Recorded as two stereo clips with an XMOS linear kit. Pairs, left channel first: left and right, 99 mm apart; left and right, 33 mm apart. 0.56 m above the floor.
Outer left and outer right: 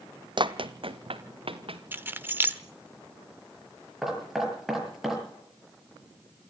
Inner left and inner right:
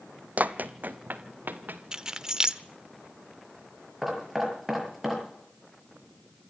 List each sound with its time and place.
0.4 s running footsteps: 50° right (ahead or behind), 0.9 m; by 1.8 s 65° right (ahead or behind), 2.5 m
1.9 s keys jangling: 20° right (ahead or behind), 1.0 m
4.0 s knocking: 5° right (ahead or behind), 6.5 m